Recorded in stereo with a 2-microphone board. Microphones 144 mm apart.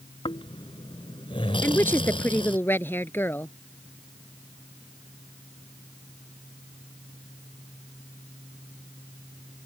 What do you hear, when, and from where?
0.2 s snoring: 40° left (ahead or behind)
1.6 s a woman speaking: 15° left (ahead or behind)